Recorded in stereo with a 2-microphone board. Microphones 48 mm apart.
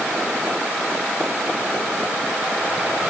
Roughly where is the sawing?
No sawing in this recording.